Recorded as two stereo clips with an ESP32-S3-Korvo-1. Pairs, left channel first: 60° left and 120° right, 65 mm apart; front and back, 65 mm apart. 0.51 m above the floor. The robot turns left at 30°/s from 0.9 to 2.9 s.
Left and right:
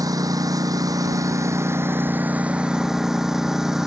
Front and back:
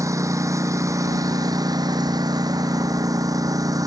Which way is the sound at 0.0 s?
140° right.